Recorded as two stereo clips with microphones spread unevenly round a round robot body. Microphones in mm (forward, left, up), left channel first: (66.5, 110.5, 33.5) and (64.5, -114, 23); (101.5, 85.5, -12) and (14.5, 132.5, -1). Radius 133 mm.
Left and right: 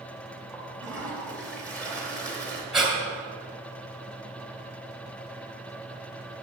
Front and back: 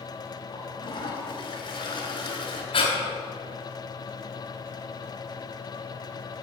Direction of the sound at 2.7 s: 5° right.